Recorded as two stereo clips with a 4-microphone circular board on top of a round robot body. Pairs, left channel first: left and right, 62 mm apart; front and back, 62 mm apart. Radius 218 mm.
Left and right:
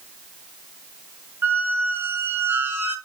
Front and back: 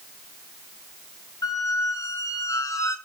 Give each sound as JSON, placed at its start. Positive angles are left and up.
{"t": 1.4, "sound": "a squeak", "azimuth_deg": -35, "distance_m": 2.5}